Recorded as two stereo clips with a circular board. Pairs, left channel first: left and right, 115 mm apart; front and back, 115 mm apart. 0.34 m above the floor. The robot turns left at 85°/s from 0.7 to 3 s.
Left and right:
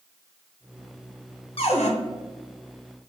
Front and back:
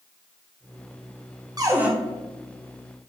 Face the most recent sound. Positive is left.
turn(degrees=5)